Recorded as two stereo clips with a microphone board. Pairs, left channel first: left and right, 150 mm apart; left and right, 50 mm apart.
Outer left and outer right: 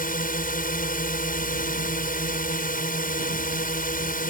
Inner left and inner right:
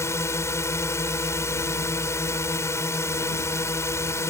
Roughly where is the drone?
Left.